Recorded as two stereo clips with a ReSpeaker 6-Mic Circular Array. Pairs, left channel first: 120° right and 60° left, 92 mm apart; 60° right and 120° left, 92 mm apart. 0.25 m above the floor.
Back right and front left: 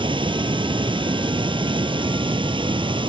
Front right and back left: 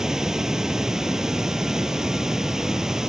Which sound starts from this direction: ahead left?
Running water, at 0.0 s.